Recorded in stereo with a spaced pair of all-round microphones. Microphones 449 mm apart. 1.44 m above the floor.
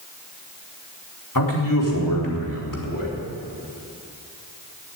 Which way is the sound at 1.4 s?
50° left (ahead or behind).